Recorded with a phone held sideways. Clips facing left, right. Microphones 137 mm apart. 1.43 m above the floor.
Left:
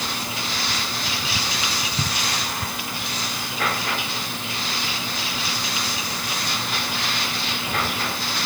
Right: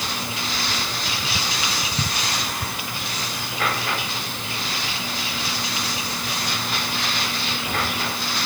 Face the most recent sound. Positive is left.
No sound to turn to.